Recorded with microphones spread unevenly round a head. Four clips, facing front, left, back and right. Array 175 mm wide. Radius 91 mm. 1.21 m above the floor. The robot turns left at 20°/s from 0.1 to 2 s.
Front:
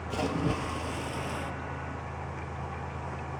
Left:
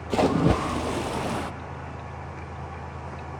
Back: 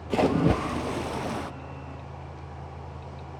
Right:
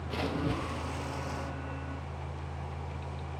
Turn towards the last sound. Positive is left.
turn(degrees=85)